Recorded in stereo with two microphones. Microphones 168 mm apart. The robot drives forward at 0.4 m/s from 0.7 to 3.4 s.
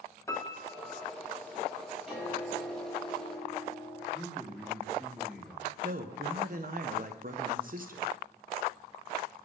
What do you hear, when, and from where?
0.3 s a piano: 20° left (ahead or behind), 1.1 m; by 1.1 s 15° left (ahead or behind), 1.2 m
2.1 s a piano: centre (ahead or behind), 3 m
4.1 s a man speaking: 5° right (ahead or behind), 3.5 m
5.8 s a man speaking: 55° right (ahead or behind), 0.9 m